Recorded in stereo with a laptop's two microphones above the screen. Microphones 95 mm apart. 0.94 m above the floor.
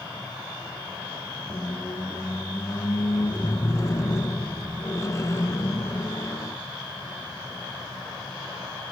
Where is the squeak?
35° left (ahead or behind), 1.0 m.